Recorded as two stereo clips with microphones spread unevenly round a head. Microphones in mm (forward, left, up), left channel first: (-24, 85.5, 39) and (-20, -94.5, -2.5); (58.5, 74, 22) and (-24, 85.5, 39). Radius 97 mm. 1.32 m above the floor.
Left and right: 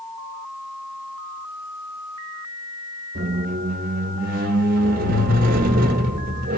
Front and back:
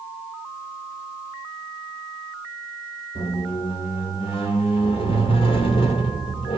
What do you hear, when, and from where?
3.1 s a squeak: 40° right, 0.8 m